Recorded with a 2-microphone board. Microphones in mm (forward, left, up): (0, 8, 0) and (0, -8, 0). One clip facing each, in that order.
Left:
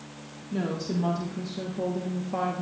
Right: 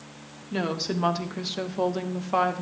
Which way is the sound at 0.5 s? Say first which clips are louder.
Right 2 dB; 40° right (ahead or behind).